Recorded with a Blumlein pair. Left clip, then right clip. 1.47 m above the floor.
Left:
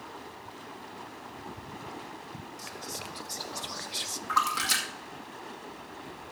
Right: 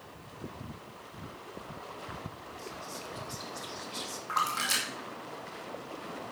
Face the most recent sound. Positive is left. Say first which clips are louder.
# left 3 dB
turn(degrees=10)